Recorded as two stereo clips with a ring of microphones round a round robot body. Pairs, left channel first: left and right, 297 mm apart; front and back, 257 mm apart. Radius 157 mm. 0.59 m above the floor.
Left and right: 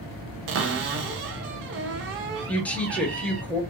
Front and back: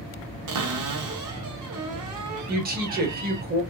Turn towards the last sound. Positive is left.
turn(degrees=170)